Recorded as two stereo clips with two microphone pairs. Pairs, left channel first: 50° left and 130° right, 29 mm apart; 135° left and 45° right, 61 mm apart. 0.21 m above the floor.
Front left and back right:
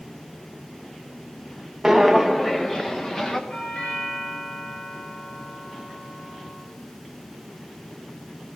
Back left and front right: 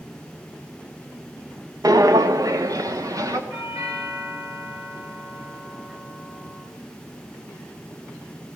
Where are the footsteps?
55° right, 0.6 m; by 3.4 s 25° right, 1.6 m.